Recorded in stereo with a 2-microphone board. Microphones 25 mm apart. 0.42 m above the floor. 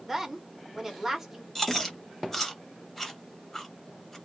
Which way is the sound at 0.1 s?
10° right (ahead or behind).